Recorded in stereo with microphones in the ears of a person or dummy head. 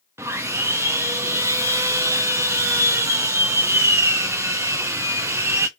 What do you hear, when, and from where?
0.2 s sawing: 15° right (ahead or behind), 0.6 m